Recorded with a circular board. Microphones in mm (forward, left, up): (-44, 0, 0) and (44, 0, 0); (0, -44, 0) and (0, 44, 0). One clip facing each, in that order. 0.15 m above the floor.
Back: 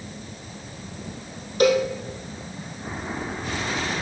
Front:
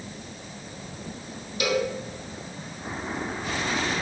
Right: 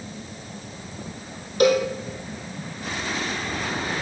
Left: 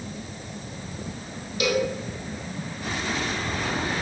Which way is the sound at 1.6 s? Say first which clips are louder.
Back 7 dB, right 6 dB; 135° right.